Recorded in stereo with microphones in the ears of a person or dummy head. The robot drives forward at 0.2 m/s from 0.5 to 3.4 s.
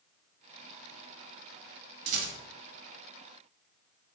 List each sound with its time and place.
2.1 s a rattle: 45° right (ahead or behind), 1.1 m